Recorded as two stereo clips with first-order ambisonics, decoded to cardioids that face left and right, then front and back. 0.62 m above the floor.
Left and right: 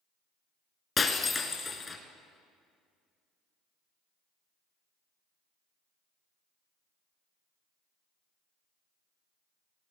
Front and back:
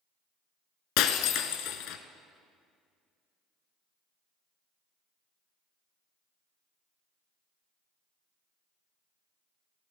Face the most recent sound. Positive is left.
turn(degrees=20)